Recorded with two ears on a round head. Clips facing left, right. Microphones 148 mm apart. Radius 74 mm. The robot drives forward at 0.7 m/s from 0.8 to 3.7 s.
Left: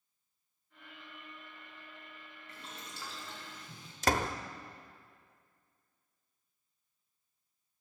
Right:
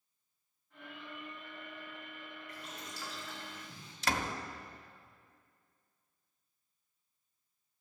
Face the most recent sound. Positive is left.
turn(degrees=35)  # may be behind; listen again after turning